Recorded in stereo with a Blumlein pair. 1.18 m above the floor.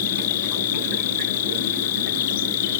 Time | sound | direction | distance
0.0 | an insect | 55° left | ?